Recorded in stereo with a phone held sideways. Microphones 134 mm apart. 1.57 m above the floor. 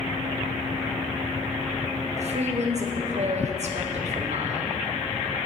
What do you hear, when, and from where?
2.2 s a woman speaking: 55° right (ahead or behind), 0.7 m